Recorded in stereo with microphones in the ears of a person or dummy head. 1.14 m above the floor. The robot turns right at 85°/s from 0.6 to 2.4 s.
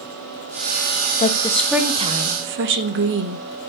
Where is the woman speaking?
140° left, 1.2 m; by 3.4 s 115° right, 1.2 m.